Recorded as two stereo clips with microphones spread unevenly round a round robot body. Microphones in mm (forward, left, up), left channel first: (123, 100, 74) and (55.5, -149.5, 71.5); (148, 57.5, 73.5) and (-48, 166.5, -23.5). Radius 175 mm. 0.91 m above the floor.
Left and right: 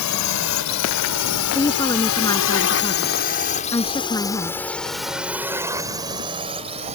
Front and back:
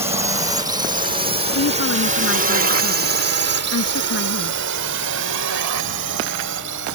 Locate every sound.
0.0 s a drone: 80° left; by 7.0 s 175° right
1.6 s a woman speaking: straight ahead